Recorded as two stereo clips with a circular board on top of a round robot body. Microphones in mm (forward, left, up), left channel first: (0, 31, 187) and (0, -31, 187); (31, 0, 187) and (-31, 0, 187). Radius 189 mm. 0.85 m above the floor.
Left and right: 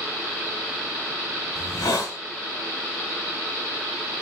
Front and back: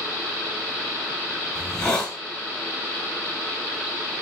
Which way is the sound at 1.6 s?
80° left.